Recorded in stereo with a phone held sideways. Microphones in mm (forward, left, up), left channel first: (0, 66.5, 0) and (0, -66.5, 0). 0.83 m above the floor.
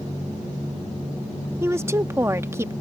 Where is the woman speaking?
20° right (ahead or behind).